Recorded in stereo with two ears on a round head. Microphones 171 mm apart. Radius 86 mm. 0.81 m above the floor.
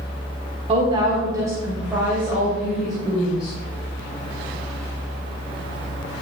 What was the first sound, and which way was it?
A woman speaking, 30° right (ahead or behind).